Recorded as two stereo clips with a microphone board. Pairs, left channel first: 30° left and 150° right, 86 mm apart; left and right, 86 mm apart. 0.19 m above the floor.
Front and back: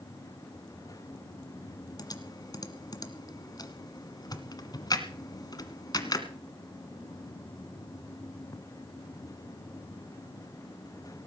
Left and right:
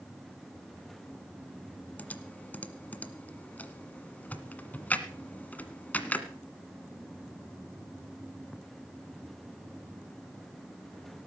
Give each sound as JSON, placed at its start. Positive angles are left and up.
{"t": 2.0, "sound": "typing on a keyboard", "azimuth_deg": 25, "distance_m": 1.5}